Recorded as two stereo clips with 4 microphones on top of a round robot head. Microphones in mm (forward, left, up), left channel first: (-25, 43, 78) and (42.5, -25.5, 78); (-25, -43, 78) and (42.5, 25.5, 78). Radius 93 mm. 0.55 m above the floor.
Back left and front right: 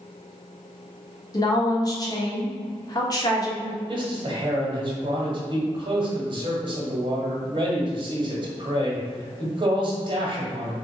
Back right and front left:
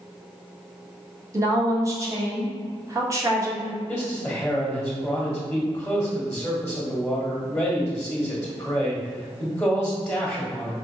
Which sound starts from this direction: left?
A woman speaking, at 1.3 s.